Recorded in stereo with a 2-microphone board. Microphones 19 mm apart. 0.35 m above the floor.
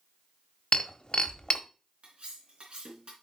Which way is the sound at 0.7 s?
50° left (ahead or behind).